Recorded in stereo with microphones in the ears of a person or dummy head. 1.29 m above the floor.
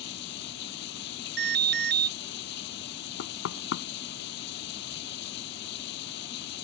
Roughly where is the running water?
Left.